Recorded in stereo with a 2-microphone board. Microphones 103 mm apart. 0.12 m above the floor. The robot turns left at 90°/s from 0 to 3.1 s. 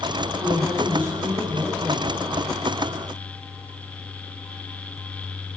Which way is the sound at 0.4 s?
105° left.